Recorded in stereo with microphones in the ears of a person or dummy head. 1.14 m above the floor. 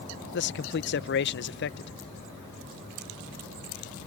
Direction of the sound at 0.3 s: 55° left (ahead or behind).